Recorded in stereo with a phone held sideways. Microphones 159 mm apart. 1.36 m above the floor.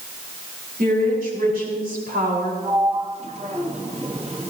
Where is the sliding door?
40° right (ahead or behind), 1.4 m.